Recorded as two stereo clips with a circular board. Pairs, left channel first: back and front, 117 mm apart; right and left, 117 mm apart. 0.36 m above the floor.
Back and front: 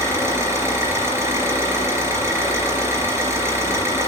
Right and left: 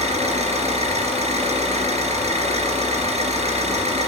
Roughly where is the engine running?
Ahead left.